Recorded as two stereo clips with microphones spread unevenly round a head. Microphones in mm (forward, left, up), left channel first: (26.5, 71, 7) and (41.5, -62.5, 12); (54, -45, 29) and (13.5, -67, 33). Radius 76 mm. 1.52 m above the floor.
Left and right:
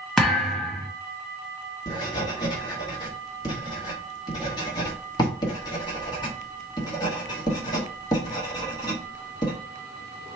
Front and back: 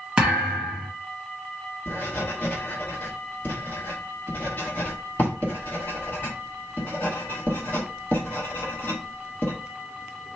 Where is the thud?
175° right, 0.9 m.